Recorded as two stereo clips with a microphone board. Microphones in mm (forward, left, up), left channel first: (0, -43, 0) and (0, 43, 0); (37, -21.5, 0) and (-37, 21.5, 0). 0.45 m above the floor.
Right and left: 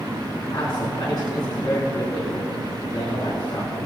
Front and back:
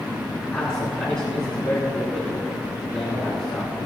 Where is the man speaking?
110° right, 3.5 m.